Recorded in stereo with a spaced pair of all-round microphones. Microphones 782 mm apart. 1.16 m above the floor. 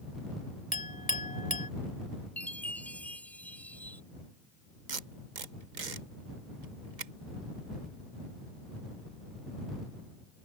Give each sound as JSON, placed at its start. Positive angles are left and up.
{"t": 0.7, "sound": "a clink", "side_deg": 10}
{"t": 2.4, "sound": "a chime", "side_deg": 0}
{"t": 4.9, "sound": "tape being pulled", "side_deg": -70}